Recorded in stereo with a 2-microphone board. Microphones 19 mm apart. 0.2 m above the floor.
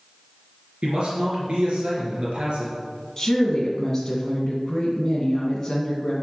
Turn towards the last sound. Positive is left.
turn(degrees=10)  # may be behind; listen again after turning